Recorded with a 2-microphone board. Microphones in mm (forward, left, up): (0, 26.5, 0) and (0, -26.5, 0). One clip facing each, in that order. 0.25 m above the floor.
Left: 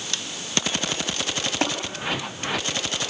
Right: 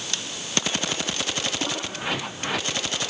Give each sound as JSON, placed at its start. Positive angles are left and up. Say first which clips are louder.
{"t": 1.6, "sound": "tapping", "louder": "left 6 dB", "side_deg": 45, "distance_m": 4.0}